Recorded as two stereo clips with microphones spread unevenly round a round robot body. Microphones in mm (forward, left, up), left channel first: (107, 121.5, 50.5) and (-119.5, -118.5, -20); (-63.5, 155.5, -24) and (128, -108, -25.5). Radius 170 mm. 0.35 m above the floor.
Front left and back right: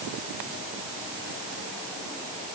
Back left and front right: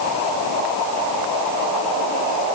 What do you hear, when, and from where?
Only background noise.